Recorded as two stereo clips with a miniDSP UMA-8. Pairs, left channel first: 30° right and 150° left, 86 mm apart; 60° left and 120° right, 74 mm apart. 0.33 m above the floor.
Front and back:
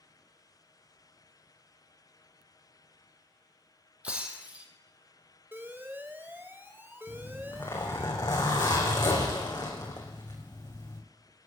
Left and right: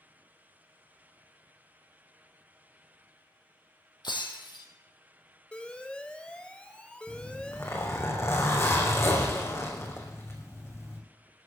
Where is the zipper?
10° left, 4.5 m.